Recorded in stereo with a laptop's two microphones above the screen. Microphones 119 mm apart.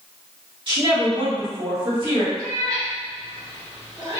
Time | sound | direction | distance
0.7 | a woman speaking | 45° right (ahead or behind) | 1.6 m
2.4 | a cat meowing | 30° right (ahead or behind) | 1.8 m